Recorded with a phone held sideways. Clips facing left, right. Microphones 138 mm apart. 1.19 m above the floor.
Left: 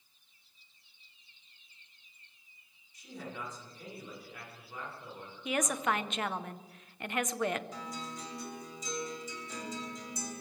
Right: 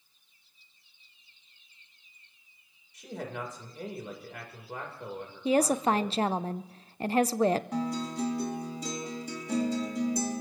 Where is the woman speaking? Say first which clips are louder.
Right 8 dB; 35° right (ahead or behind), 0.5 m.